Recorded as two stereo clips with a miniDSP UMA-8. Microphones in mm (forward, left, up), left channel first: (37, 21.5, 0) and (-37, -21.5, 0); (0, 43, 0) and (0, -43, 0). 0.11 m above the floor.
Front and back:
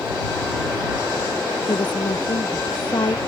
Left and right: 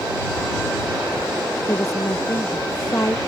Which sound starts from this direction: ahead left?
A woman speaking, at 1.7 s.